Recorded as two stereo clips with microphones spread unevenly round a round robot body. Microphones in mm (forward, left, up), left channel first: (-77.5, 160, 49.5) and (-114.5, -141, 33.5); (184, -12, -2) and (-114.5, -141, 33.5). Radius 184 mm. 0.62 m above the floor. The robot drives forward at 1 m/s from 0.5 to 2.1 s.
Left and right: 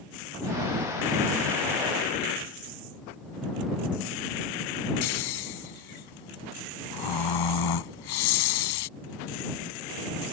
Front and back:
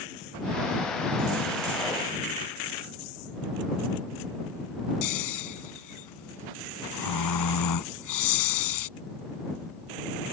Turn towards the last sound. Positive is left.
turn(degrees=65)